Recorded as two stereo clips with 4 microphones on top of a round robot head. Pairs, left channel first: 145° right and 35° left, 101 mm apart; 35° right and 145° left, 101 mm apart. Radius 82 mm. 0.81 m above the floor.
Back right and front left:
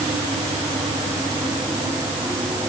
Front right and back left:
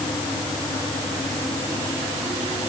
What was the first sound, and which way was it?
Only background noise.